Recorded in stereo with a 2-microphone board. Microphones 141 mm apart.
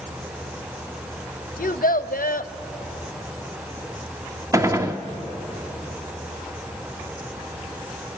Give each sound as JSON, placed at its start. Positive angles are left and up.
{"t": 1.6, "sound": "a child speaking", "side_deg": 85, "distance_m": 0.7}
{"t": 4.5, "sound": "a gunshot", "side_deg": -20, "distance_m": 1.0}